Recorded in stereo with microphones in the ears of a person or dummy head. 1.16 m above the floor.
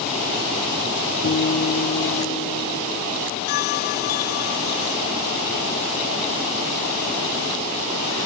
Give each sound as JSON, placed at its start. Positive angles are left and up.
{"t": 1.2, "sound": "a guitar", "side_deg": 55}
{"t": 3.5, "sound": "a bell", "side_deg": 50}